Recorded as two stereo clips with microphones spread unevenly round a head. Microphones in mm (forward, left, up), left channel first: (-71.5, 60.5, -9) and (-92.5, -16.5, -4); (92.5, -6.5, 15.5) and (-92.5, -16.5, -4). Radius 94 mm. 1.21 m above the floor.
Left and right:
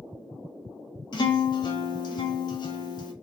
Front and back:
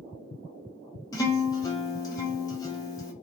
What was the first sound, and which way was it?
A guitar, 65° left.